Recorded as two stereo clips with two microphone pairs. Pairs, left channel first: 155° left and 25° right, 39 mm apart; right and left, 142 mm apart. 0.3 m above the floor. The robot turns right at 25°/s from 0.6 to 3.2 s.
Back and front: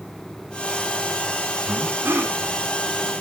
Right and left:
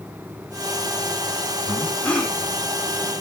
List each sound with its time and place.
1.7 s breathing: 20° right, 2 m; by 2.4 s 5° right, 2 m